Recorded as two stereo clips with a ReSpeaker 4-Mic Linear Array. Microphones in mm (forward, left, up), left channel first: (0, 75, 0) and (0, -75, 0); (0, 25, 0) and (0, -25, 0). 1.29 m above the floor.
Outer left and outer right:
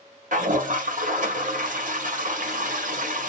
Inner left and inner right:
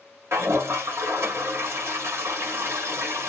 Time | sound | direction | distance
0.3 | a toilet flushing | 60° right (ahead or behind) | 1.6 m